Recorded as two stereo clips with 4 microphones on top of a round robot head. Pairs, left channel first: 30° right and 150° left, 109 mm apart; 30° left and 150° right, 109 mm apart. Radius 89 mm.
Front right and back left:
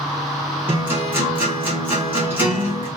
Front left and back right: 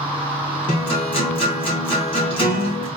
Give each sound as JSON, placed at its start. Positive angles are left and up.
{"t": 0.7, "sound": "a guitar", "azimuth_deg": 75, "distance_m": 2.0}